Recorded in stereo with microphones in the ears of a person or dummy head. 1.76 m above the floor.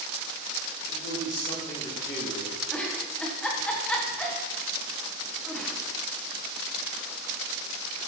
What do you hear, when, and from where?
0.9 s a man speaking: 15° left (ahead or behind), 4 m; by 2.5 s 20° left (ahead or behind), 5 m
2.7 s a giggle: 10° left (ahead or behind), 2.0 m